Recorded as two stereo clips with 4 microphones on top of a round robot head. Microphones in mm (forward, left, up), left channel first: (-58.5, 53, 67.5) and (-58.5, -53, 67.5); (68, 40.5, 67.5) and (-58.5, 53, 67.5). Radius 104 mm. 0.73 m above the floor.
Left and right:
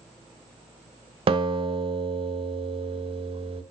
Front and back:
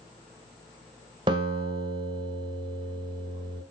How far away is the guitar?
About 1.3 m.